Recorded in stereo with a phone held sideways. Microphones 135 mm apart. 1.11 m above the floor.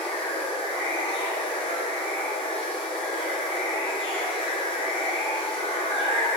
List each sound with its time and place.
0.0 s running water: 40° left (ahead or behind), 0.7 m